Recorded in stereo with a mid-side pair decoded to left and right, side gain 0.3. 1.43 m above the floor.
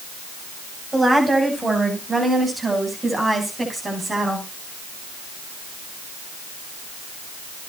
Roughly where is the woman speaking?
Ahead right.